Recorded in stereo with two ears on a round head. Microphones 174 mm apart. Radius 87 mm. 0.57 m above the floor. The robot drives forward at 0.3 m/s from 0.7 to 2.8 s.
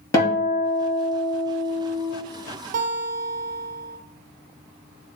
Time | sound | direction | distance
0.1 | a guitar | 15° left (ahead or behind) | 2.5 m
2.7 | a guitar | 40° right (ahead or behind) | 0.7 m